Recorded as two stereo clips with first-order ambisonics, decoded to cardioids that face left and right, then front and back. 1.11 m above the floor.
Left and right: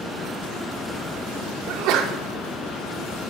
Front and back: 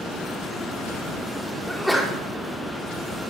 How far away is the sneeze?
About 1.1 m.